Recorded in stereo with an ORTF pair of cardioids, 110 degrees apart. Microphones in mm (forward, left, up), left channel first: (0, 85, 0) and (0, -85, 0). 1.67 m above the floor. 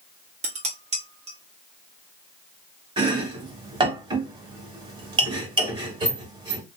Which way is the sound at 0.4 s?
45° right.